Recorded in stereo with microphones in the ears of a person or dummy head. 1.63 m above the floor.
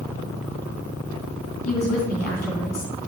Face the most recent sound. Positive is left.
turn(degrees=55)  # may be behind; listen again after turning